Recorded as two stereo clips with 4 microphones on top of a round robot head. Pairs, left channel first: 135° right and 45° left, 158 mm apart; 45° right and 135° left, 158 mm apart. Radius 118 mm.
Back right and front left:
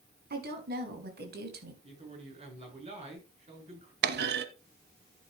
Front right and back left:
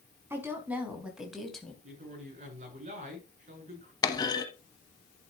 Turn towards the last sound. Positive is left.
turn(degrees=25)